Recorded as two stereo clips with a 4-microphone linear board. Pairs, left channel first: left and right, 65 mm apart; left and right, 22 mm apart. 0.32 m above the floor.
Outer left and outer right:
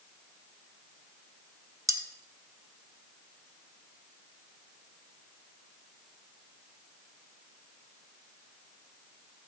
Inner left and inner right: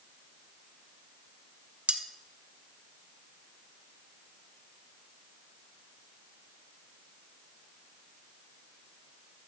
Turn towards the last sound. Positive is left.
turn(degrees=-60)  # may be behind; listen again after turning